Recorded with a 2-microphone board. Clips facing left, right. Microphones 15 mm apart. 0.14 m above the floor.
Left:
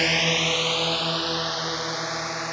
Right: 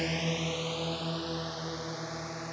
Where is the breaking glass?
I don't hear breaking glass.